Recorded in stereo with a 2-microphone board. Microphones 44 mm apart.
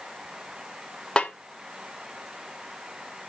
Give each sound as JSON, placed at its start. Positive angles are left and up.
{"t": 1.2, "sound": "a snare drum", "side_deg": 25, "distance_m": 1.3}